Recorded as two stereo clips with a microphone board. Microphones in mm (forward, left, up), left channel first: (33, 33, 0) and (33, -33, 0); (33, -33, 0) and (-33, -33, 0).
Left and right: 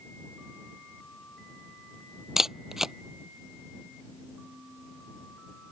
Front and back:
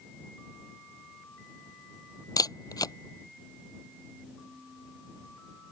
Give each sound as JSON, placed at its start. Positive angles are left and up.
{"t": 2.4, "sound": "a camera shutter", "azimuth_deg": -10}